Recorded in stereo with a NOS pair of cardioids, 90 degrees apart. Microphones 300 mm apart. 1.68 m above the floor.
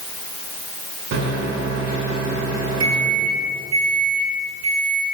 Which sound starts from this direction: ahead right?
A microwave, at 1.1 s.